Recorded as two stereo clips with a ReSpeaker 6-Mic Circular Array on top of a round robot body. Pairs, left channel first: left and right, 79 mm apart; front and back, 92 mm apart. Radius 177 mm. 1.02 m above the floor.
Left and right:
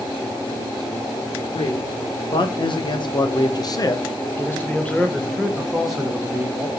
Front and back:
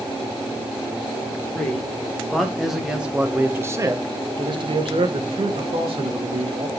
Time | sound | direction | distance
1.5 | a man speaking | 75° left | 2.5 m